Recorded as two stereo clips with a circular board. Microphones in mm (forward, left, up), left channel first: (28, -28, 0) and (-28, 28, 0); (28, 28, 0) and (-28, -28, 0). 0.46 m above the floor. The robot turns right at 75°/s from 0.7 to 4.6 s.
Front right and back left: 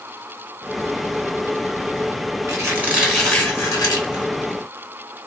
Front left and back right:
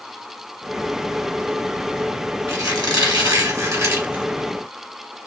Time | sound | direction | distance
2.5 | a squeak | 175° left | 1.6 m